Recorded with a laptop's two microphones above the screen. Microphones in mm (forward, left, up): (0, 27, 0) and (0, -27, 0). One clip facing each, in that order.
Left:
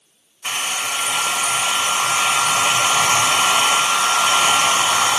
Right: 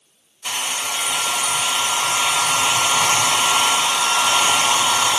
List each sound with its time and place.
0.4 s a hair dryer: 35° left (ahead or behind), 3.5 m